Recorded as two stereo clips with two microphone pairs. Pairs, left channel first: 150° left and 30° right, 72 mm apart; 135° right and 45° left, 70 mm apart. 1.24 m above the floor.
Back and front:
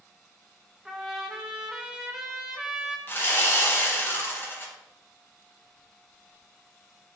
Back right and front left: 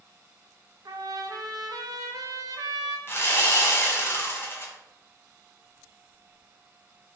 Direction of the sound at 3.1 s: 170° right.